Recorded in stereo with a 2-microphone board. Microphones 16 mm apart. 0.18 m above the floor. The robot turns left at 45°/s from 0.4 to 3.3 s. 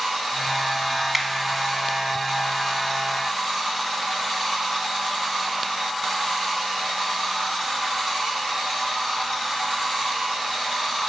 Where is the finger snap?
20° right (ahead or behind), 0.9 m; by 1.3 s 15° right (ahead or behind), 0.9 m.